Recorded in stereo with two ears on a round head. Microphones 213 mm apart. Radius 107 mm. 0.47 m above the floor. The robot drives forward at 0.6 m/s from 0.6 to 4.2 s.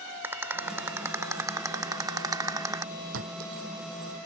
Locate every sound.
0.2 s a rattle: 10° right (ahead or behind); by 2.9 s 15° right (ahead or behind)
3.1 s a clink: 60° right (ahead or behind)